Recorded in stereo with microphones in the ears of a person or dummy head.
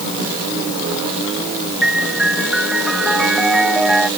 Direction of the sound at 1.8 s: 5° left (ahead or behind).